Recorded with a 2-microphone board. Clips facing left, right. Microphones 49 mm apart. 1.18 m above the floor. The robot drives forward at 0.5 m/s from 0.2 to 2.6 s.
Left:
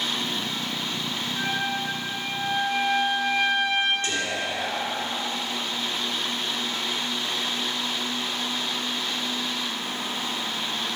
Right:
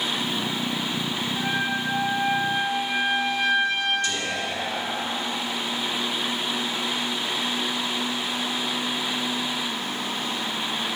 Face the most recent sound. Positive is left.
turn(degrees=40)  # may be behind; listen again after turning